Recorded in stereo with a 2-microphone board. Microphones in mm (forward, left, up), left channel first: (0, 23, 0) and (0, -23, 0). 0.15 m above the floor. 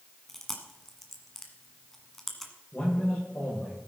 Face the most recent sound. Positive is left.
turn(degrees=35)  # may be behind; listen again after turning